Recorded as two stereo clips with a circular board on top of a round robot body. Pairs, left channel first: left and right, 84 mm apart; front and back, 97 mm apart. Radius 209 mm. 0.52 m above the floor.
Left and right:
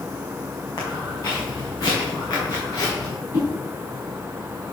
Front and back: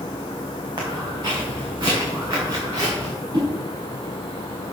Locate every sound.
0.8 s footsteps: 145° left, 3.5 m; by 3.1 s 140° left, 6.5 m
3.3 s a whoosh: 145° left, 4.5 m